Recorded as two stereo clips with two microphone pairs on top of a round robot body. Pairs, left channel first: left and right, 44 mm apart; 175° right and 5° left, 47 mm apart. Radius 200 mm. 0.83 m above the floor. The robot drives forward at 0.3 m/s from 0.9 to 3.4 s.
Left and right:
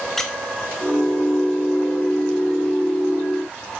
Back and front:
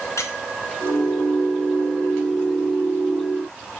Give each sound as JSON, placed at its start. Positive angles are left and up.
{"t": 0.2, "sound": "a squeak", "azimuth_deg": 170, "distance_m": 1.1}